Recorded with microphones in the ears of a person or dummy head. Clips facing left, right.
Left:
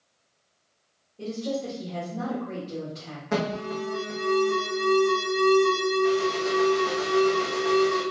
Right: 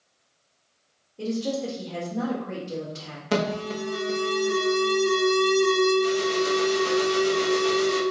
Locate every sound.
1.2 s a woman speaking: 85° right, 1.4 m
3.3 s an alarm: 40° right (ahead or behind), 0.6 m